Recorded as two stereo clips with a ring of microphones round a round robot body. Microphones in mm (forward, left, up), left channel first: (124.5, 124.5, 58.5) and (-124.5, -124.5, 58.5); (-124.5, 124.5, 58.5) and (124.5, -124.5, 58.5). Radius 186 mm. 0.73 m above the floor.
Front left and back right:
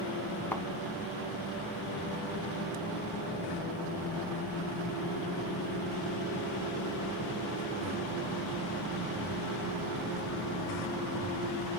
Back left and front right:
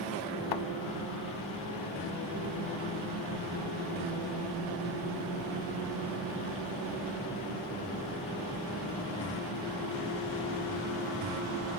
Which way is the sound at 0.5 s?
130° left.